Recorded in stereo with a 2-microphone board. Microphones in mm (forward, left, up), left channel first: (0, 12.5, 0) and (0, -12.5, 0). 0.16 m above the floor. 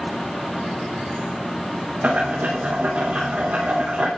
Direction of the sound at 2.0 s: 80° right.